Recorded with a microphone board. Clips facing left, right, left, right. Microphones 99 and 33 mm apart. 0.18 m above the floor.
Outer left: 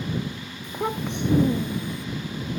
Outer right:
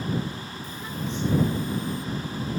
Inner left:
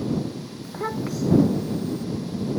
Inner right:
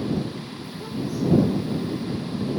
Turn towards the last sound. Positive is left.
turn(degrees=65)  # may be behind; listen again after turning